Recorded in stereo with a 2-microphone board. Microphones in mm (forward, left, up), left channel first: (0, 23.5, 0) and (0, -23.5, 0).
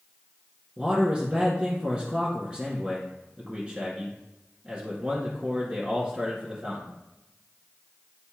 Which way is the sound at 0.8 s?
20° right (ahead or behind).